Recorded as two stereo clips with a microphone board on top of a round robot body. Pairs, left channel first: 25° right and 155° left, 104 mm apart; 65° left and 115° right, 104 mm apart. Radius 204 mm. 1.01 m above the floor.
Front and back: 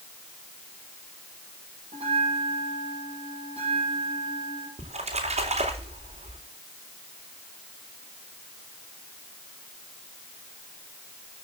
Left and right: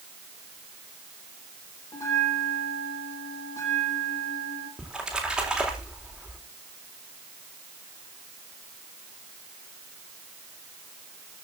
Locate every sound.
1.9 s a bell: 130° left, 8 m
4.8 s a splash: 165° left, 4 m